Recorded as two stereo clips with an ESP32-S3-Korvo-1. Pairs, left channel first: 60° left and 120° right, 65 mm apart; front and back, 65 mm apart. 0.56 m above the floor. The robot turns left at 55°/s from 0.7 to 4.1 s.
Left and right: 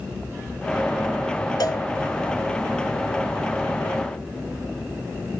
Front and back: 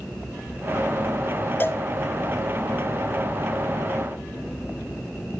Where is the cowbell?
55° left, 1.3 m; by 1.8 s 45° left, 1.3 m.